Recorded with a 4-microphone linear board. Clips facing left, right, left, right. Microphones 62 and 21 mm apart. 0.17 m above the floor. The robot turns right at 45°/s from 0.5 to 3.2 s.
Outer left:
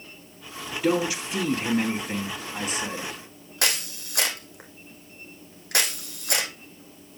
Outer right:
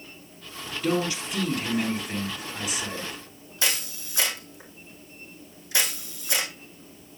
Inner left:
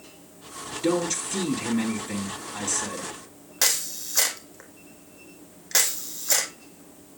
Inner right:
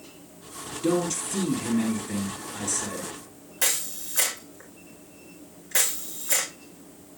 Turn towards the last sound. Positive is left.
turn(degrees=55)  # may be behind; listen again after turning